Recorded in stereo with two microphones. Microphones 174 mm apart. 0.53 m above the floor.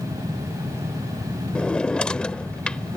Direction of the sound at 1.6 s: 5° left (ahead or behind).